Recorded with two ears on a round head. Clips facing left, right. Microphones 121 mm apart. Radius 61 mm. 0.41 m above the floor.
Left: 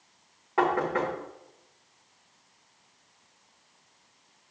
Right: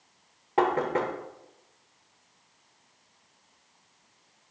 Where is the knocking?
25° right (ahead or behind), 1.0 m.